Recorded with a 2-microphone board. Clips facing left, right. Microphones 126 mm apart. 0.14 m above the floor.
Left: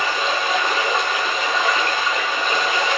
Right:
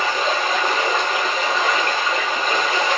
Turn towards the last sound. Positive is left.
turn(degrees=-40)  # may be behind; listen again after turning